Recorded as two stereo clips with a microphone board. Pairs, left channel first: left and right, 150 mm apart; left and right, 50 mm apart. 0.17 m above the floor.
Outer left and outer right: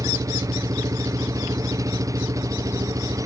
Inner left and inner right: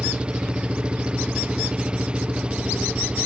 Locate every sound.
0.0 s an engine running: 20° right (ahead or behind)